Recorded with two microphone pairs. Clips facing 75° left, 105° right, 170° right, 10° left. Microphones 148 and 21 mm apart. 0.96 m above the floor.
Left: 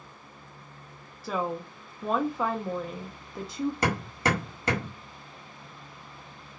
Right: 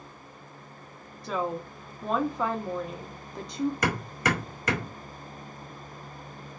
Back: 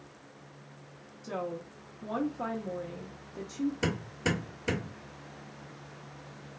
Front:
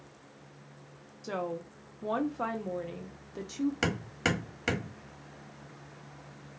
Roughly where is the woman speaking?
Ahead.